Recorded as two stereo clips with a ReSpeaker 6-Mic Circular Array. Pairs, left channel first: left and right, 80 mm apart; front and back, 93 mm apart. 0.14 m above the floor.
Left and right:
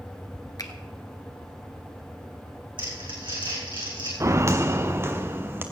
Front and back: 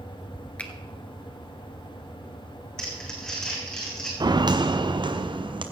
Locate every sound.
0.6 s a finger snap: 70° left, 1.3 m
2.8 s crumpling: 85° right, 3.5 m
4.2 s footsteps: 140° right, 0.9 m; by 5.6 s 150° right, 1.7 m